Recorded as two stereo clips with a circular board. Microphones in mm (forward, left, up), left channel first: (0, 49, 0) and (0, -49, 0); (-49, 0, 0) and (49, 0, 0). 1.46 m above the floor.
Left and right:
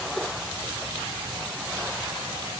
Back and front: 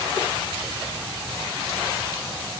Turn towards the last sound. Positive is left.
No sound to turn to.